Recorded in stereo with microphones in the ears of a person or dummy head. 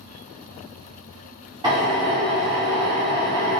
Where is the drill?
20° right (ahead or behind), 0.9 m.